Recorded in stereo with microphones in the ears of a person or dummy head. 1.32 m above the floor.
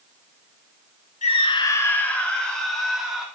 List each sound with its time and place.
1.2 s a scream: 35° left (ahead or behind), 1.2 m; by 3.3 s 5° right (ahead or behind), 3.5 m